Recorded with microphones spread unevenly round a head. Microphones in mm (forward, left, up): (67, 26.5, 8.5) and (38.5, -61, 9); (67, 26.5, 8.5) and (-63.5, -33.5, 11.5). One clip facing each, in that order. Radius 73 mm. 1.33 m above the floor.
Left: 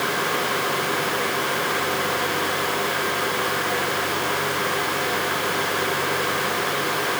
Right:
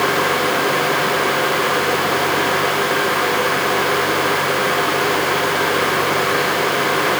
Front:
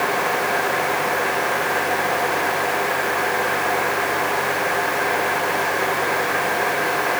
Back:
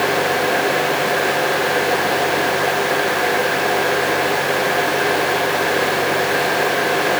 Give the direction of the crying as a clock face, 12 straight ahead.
No crying in this recording.